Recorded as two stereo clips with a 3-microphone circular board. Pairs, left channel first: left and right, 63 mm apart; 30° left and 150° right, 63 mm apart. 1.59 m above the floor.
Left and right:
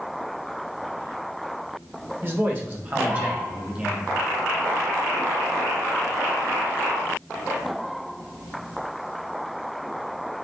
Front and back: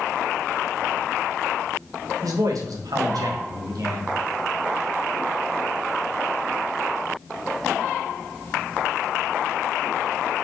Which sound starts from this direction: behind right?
A man speaking, at 2.2 s.